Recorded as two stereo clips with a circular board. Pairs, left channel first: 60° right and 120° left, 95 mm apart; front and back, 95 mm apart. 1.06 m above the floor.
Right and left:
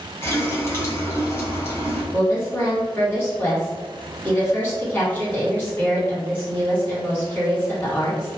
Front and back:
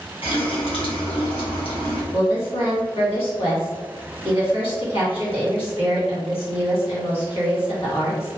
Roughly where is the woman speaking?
Ahead.